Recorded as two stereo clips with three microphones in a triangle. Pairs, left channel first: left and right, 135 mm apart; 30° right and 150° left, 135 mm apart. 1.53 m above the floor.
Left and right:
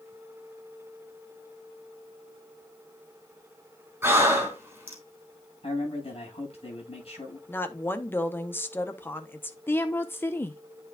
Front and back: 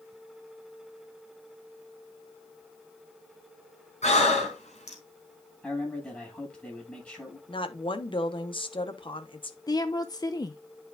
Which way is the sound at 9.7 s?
20° left.